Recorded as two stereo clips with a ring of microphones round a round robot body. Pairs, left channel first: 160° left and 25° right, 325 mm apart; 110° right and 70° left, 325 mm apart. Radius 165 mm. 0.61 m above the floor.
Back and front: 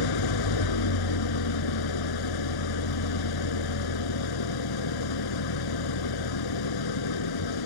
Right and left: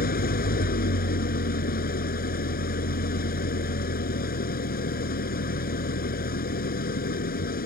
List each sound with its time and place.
0.0 s an engine running: straight behind